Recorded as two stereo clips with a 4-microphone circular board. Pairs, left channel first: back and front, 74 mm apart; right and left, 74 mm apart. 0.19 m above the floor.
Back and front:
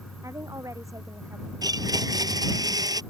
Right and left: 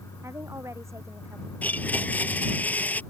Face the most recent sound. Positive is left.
turn(degrees=-25)